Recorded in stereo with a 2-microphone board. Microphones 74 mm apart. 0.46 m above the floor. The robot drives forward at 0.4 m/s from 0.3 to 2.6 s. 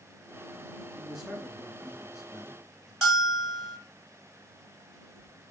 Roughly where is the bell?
Centre.